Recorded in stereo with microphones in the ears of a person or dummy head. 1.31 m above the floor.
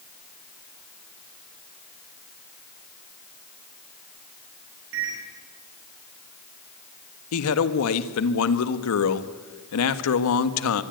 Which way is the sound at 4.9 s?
75° right (ahead or behind).